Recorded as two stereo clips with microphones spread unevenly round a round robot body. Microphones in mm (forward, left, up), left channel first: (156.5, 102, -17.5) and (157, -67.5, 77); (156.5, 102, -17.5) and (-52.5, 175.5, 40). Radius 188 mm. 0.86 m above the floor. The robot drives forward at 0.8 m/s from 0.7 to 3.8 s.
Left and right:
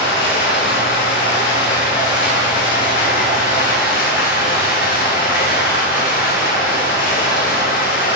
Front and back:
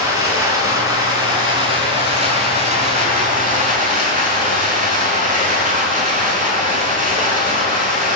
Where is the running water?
85° left, 6 m; by 8.2 s 110° left, 6.5 m.